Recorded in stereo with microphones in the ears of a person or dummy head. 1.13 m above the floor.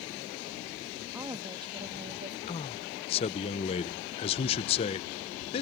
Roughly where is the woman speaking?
Centre.